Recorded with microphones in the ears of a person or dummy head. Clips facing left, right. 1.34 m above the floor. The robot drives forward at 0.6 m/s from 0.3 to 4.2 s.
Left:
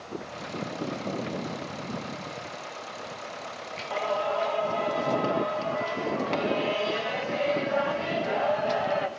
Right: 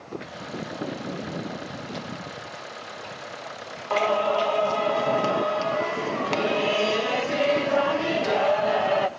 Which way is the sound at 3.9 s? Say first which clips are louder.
Right 6 dB; 65° right (ahead or behind).